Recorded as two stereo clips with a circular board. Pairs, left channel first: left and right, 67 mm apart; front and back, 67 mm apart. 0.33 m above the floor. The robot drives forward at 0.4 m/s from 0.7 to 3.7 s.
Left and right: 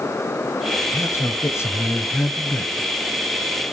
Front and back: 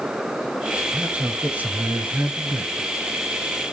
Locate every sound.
0.9 s a man speaking: 105° left, 1.3 m; by 2.9 s 140° left, 1.6 m